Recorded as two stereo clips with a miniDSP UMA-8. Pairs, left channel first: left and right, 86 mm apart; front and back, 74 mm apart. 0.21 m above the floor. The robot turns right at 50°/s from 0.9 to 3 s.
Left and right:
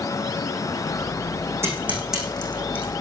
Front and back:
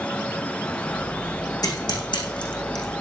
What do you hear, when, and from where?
1.6 s scissors: 30° right, 6 m; by 3.0 s 35° left, 6 m